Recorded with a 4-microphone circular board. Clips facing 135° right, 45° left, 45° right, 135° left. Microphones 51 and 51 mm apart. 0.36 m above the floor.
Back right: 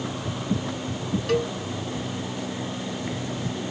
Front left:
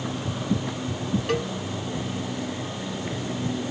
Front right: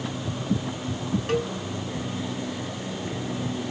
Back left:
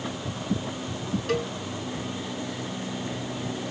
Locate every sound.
1.3 s a cowbell: 15° right, 1.9 m